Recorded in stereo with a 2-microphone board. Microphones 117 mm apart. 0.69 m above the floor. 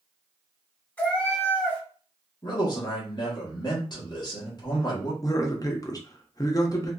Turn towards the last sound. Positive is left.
turn(degrees=30)  # may be behind; listen again after turning